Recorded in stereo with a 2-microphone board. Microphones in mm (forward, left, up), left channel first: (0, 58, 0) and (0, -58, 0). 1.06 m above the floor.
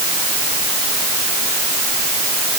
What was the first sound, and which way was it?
Only background noise.